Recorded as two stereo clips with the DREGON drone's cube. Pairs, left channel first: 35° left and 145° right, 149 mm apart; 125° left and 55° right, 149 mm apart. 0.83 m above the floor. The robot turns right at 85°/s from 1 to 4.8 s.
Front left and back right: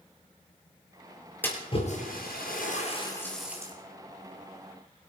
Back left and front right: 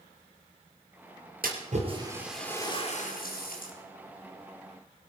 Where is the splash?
45° right, 4 m; by 3.7 s 150° left, 4 m.